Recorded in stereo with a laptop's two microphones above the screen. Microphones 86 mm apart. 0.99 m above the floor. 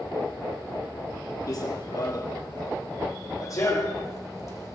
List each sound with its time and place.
1.5 s running footsteps: 45° left (ahead or behind), 1.3 m; by 4.8 s 35° left (ahead or behind), 2.5 m